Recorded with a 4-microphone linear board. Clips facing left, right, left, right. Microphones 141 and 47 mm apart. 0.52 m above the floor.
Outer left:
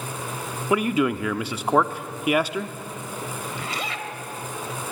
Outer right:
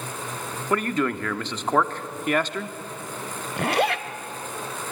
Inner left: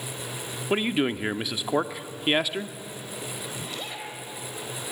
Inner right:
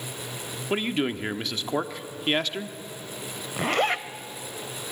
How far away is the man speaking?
About 0.7 m.